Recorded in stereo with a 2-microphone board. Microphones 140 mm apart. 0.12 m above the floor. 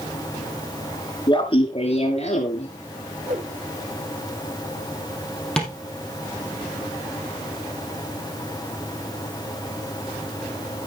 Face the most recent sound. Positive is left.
turn(degrees=5)  # may be behind; listen again after turning